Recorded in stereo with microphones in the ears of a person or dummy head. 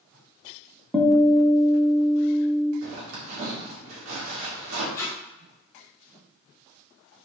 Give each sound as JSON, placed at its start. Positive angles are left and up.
{"t": 0.9, "sound": "a guitar", "side_deg": 5, "distance_m": 0.8}
{"t": 2.8, "sound": "a zipper", "side_deg": -75, "distance_m": 2.5}
{"t": 4.9, "sound": "tape being pulled", "side_deg": 15, "distance_m": 1.2}